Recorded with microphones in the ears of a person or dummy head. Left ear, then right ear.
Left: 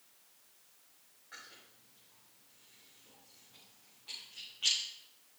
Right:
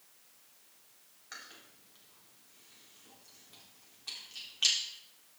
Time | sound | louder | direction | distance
1.3 | chewing | right 3 dB | 80° right | 3.5 m